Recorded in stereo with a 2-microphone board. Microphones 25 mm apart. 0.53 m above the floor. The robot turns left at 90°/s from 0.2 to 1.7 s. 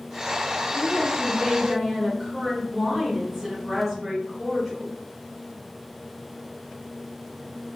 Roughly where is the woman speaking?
Left.